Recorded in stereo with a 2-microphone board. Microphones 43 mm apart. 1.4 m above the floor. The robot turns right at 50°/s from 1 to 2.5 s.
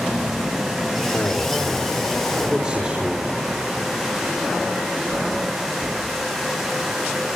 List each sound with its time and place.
1.1 s a man speaking: 135° left, 5.5 m; by 3.3 s 155° right, 5.5 m